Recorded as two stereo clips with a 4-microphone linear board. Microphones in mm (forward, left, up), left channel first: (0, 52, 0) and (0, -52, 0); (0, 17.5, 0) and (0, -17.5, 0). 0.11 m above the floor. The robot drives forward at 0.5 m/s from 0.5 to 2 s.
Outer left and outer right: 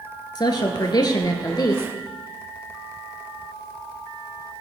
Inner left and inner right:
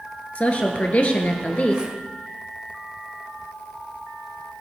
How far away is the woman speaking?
About 1.6 m.